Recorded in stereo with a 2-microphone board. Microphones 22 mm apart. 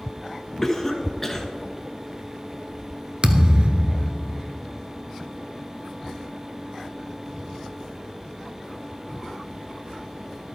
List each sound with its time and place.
0.6 s a cough: 15° left (ahead or behind), 1.9 m
3.2 s a thud: 50° right (ahead or behind), 0.8 m